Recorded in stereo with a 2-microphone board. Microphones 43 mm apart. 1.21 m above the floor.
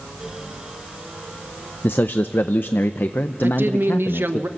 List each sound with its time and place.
1.8 s a man speaking: 55° left (ahead or behind), 0.7 m
3.4 s a woman speaking: 65° right (ahead or behind), 1.1 m